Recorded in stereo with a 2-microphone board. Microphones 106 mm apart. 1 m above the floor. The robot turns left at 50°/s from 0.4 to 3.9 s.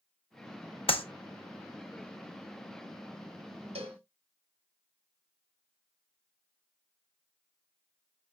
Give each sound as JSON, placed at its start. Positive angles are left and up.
{"t": 0.9, "sound": "a clap", "side_deg": 65, "distance_m": 0.9}
{"t": 3.8, "sound": "a cowbell", "side_deg": -85, "distance_m": 1.2}